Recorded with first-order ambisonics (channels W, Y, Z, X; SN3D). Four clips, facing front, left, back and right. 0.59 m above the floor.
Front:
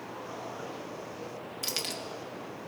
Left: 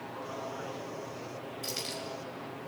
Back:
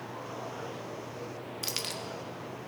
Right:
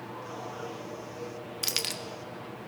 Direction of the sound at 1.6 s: 90° right.